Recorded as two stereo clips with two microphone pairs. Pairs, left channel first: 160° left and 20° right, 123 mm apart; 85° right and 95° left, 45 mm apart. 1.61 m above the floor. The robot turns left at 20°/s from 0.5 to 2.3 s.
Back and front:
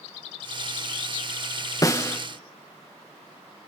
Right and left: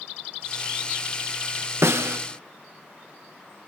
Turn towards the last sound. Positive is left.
turn(degrees=90)